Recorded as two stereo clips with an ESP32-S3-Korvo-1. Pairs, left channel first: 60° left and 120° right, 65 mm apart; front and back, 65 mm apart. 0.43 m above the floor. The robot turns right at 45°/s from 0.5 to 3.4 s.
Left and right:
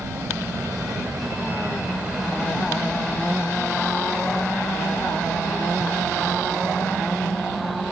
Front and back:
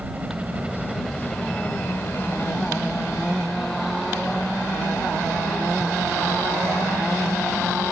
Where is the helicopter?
120° right; by 7.9 s 10° left.